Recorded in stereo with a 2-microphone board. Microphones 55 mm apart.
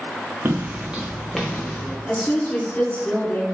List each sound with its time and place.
0.5 s footsteps: 40° right (ahead or behind), 0.6 m; by 2.0 s 20° left (ahead or behind), 1.1 m
2.1 s a woman speaking: 20° left (ahead or behind), 1.2 m